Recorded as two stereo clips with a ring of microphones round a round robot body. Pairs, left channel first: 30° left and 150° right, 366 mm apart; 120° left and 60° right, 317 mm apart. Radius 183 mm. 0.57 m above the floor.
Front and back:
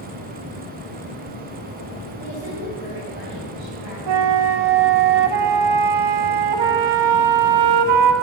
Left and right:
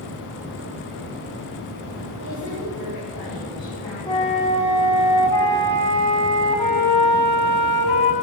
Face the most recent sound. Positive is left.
turn(degrees=-165)